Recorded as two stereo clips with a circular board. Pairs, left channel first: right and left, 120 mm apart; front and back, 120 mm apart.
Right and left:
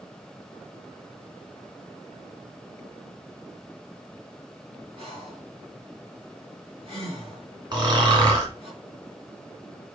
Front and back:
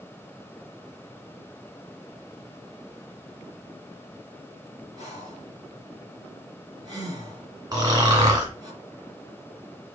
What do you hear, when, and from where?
5.0 s breathing: 125° left, 3.5 m
7.7 s snoring: 130° left, 2.5 m